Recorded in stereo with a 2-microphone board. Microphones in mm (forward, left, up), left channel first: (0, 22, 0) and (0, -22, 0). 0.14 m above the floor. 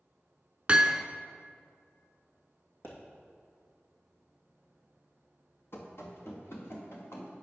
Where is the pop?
50° left (ahead or behind), 2.5 m.